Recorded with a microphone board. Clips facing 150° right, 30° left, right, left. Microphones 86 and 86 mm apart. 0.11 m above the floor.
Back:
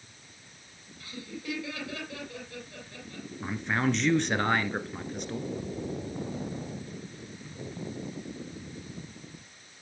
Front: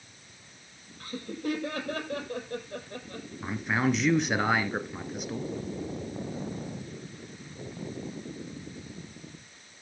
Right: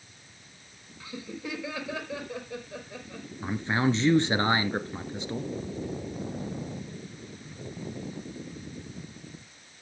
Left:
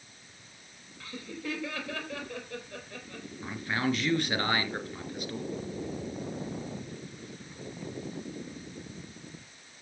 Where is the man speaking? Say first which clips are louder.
Front 1 dB, right 4 dB; 50° right, 1.6 m.